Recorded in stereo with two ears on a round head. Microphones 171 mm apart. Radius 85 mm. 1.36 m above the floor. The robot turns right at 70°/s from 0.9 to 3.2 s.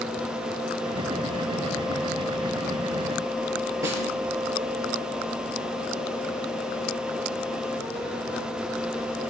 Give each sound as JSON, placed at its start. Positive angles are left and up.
{"t": 3.8, "sound": "a snare drum", "side_deg": -15, "distance_m": 4.5}